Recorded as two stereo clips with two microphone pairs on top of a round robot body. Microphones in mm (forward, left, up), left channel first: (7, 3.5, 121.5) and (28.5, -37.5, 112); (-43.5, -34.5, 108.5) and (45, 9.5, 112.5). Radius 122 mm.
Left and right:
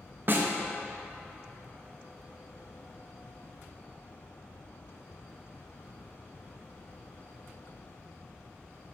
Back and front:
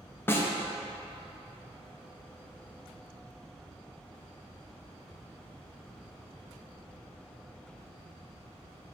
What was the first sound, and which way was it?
A snare drum, 90° right.